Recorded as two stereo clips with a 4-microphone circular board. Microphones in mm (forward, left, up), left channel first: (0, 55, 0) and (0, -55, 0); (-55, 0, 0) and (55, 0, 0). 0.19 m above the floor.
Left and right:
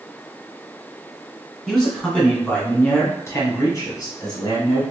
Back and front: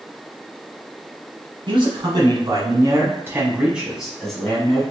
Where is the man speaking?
5° left, 1.7 m; by 4.8 s 110° left, 1.5 m.